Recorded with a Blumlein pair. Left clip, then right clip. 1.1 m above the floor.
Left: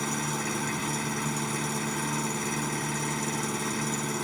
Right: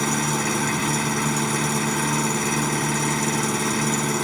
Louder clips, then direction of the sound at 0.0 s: Right 8 dB; 70° right.